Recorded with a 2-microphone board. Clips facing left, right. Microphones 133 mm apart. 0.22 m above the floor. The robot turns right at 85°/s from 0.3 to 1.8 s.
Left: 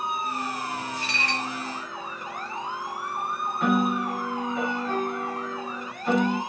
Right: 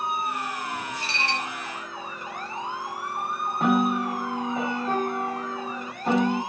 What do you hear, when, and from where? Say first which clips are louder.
1.0 s dishes clattering: even; 85° right, 0.8 m; by 1.5 s 45° right, 0.8 m
3.6 s a piano: right 1 dB; 45° right (ahead or behind), 2 m